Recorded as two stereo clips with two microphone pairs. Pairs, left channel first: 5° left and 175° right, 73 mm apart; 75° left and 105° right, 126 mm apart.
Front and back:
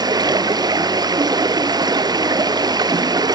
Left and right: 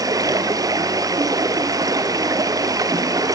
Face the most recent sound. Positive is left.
turn(degrees=-165)